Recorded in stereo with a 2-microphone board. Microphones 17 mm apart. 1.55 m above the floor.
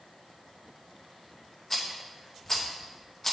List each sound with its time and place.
1.7 s a rattle: 20° left (ahead or behind), 0.9 m